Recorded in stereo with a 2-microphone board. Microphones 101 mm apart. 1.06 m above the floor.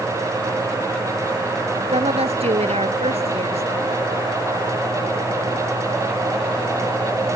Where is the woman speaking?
85° right.